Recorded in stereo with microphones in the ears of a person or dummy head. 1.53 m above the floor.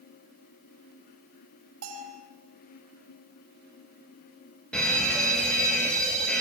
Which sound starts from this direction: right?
A bell, at 1.8 s.